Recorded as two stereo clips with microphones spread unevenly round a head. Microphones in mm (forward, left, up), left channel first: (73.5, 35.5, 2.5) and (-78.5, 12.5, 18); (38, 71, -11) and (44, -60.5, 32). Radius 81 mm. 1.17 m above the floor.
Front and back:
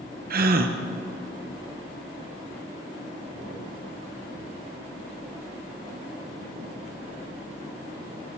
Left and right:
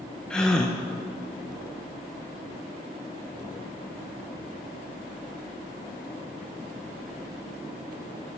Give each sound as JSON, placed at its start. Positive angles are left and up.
{"t": 0.3, "sound": "a gasp", "azimuth_deg": 170, "distance_m": 1.0}